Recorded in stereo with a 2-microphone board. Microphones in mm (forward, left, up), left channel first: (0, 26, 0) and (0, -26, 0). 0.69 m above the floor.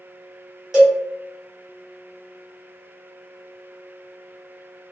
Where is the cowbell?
10° right (ahead or behind), 1.6 m.